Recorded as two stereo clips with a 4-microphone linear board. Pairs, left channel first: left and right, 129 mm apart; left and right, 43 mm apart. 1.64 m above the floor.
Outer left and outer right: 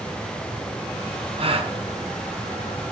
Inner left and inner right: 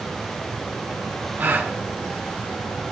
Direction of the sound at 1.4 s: 45° right (ahead or behind).